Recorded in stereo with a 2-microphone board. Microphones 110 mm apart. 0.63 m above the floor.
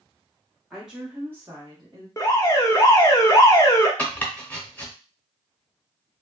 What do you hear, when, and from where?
0.7 s a woman speaking: centre (ahead or behind), 1.2 m; by 2.1 s 40° right (ahead or behind), 1.1 m
2.2 s an alarm: 30° left (ahead or behind), 0.6 m
4.0 s chopping: 15° left (ahead or behind), 0.6 m